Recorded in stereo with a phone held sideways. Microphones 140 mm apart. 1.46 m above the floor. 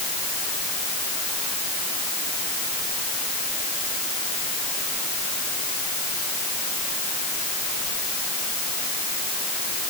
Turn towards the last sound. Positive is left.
No sound to turn to.